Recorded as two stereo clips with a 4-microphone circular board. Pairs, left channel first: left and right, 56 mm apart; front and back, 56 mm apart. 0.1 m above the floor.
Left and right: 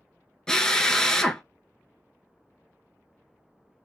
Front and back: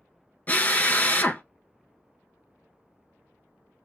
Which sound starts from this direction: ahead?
A drill, at 0.5 s.